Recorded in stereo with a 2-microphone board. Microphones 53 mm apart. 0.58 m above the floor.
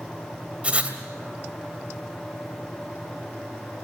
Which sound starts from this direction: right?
Writing, at 0.6 s.